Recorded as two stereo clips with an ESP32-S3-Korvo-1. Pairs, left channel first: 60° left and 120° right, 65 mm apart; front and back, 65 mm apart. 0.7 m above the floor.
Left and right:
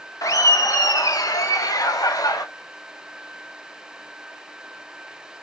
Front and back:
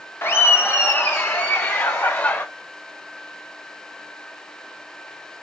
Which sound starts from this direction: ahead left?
Laughter, at 0.2 s.